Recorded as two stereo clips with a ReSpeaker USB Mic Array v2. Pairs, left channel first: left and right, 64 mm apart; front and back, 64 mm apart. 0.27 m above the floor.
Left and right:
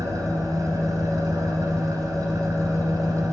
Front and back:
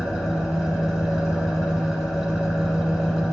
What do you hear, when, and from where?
0.0 s an engine running: 95° right, 1.2 m